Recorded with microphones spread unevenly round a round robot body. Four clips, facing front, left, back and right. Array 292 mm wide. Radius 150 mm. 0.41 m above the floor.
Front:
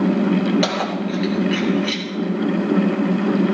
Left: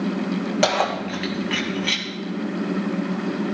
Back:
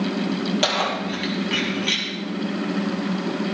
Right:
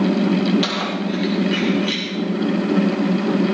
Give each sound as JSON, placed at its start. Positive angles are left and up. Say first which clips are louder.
{"t": 0.6, "sound": "keys jangling", "louder": "left 2 dB, front 2 dB", "azimuth_deg": 90, "distance_m": 1.9}